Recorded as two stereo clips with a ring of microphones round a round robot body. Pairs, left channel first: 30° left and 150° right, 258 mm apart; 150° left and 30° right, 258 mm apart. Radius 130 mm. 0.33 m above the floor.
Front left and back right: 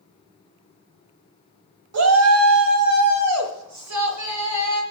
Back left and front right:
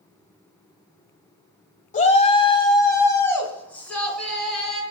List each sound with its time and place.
1.9 s a shout: 150° right, 1.5 m; by 4.8 s 120° right, 4 m